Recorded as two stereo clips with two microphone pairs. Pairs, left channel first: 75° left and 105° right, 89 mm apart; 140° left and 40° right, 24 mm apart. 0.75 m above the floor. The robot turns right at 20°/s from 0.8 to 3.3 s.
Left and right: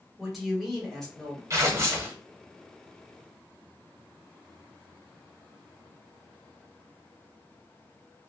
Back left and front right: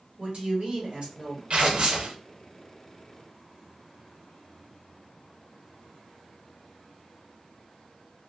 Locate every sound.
0.2 s a woman speaking: 15° right, 1.4 m; by 1.4 s straight ahead, 1.4 m
1.5 s tearing paper: 55° right, 0.7 m; by 2.2 s 45° right, 0.7 m